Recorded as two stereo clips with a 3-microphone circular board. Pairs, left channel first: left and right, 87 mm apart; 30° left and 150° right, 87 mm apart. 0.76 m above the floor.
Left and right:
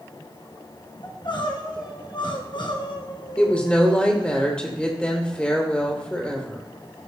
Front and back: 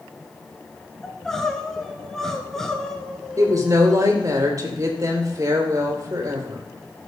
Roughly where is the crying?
Behind left.